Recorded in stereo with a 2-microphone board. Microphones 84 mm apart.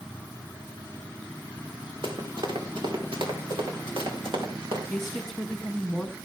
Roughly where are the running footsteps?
Right.